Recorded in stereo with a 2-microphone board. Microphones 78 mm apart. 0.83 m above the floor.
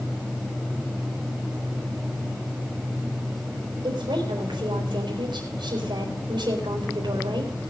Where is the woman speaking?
75° right (ahead or behind), 3.5 m.